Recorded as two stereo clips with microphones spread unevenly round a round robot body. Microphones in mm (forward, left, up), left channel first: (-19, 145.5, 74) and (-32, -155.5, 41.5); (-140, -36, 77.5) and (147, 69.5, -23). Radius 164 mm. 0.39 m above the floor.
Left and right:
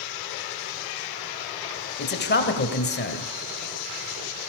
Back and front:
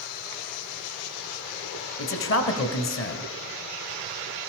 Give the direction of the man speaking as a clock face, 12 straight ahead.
7 o'clock.